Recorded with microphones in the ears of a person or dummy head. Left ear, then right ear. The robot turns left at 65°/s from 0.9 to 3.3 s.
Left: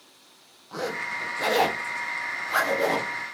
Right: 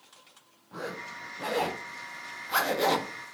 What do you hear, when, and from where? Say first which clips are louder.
0.7 s a zipper: left 8 dB; 85° left, 1.9 m; by 3.1 s 50° right (ahead or behind), 1.9 m